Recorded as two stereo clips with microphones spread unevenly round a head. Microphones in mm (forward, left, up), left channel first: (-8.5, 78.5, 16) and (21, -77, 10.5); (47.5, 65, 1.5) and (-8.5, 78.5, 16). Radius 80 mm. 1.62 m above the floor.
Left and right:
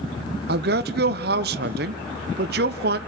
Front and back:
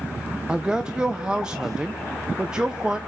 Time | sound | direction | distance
0.5 | a man speaking | 110° right | 0.8 m